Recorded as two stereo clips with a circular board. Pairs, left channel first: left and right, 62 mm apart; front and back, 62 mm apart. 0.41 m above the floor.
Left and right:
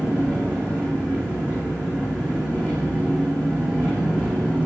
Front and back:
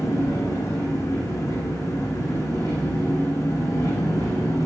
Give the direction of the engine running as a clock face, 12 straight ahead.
1 o'clock.